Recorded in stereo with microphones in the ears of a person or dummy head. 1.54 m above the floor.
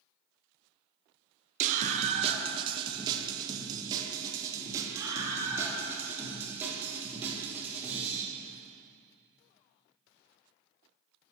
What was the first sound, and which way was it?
A scream, 40° right (ahead or behind).